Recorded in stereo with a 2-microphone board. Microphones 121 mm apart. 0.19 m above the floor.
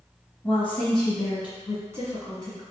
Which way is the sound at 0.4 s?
20° left (ahead or behind).